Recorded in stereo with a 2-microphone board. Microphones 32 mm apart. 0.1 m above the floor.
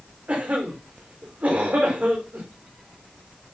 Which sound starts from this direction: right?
A cough, at 0.3 s.